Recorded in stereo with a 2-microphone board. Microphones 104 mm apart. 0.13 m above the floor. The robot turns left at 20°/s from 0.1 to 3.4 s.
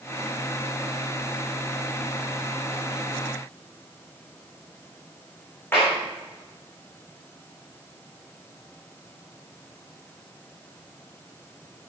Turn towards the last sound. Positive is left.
turn(degrees=20)  # may be behind; listen again after turning